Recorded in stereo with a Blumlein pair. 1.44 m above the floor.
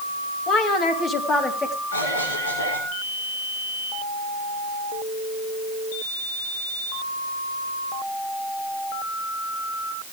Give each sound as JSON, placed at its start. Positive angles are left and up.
{"t": 0.5, "sound": "a woman speaking", "azimuth_deg": 30, "distance_m": 2.5}
{"t": 1.9, "sound": "a cough", "azimuth_deg": 70, "distance_m": 6.0}